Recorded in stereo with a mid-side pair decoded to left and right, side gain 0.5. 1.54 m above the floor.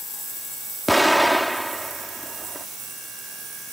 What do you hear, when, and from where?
0.9 s an explosion: 5° right